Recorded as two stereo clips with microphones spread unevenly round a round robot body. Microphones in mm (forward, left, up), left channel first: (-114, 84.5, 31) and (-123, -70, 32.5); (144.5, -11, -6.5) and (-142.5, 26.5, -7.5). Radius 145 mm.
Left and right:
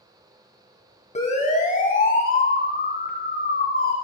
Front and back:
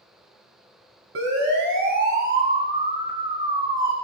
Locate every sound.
1.1 s a siren: 125° left, 3 m; by 3.9 s 95° left, 4 m